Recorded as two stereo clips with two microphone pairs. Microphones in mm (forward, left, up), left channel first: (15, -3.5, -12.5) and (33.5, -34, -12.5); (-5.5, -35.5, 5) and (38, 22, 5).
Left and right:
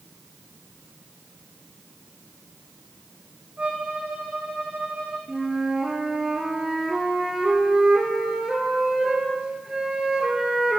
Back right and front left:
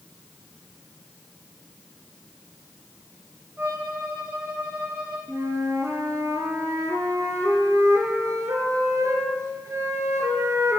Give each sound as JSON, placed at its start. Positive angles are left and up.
{"t": 3.6, "sound": "a violin", "azimuth_deg": -10, "distance_m": 3.5}
{"t": 5.3, "sound": "a flute", "azimuth_deg": 10, "distance_m": 2.0}